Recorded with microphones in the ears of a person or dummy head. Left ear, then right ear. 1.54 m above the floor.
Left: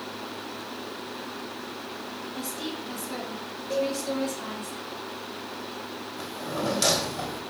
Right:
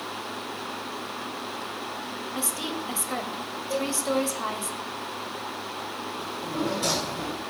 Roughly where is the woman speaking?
Right.